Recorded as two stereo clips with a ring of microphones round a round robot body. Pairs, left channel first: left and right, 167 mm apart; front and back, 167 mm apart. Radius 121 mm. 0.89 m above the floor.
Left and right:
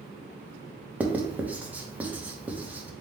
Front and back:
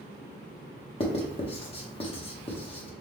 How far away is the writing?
About 0.9 m.